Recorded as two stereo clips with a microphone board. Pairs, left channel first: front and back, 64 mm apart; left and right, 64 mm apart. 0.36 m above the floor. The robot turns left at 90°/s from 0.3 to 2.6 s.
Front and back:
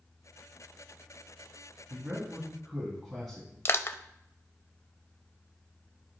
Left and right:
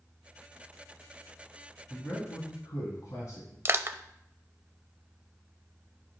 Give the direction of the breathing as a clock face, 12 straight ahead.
No breathing in this recording.